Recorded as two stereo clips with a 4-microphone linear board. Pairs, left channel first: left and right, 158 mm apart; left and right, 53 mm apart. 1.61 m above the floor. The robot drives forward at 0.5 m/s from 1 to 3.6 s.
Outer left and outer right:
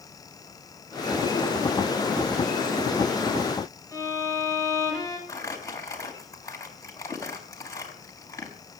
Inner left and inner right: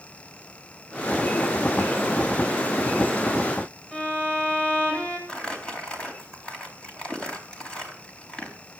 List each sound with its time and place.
3.9 s a violin: 20° left (ahead or behind), 8 m
5.3 s crumpling: 20° left (ahead or behind), 4 m